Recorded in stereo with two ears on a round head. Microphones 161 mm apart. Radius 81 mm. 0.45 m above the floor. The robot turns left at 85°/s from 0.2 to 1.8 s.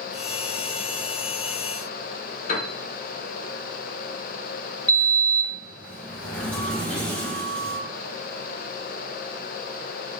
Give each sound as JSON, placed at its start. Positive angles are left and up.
{"t": 2.5, "sound": "a piano", "side_deg": 40, "distance_m": 0.7}
{"t": 4.9, "sound": "a sliding door", "side_deg": 5, "distance_m": 0.6}